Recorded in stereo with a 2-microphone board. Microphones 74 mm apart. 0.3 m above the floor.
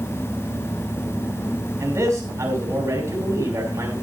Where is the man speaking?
45° right (ahead or behind), 2.5 m.